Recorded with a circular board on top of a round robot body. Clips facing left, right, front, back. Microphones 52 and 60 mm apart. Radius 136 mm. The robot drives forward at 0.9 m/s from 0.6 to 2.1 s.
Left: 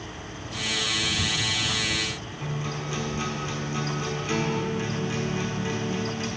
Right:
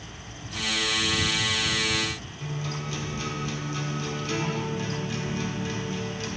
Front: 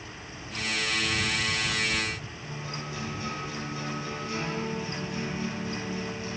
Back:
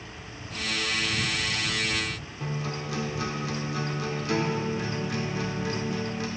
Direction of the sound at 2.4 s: 165° left.